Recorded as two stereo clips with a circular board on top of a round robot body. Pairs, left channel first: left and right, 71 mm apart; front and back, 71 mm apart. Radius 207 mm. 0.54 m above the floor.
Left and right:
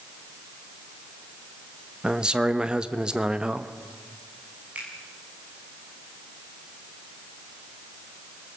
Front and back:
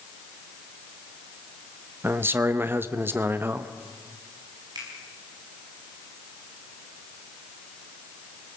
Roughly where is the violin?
No violin in this recording.